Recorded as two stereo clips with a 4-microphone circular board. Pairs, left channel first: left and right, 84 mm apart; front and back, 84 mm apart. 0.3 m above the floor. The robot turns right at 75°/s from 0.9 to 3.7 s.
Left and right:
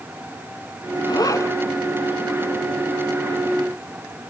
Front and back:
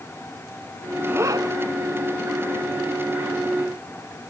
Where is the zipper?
115° left, 1.5 m; by 1.5 s 150° left, 1.5 m.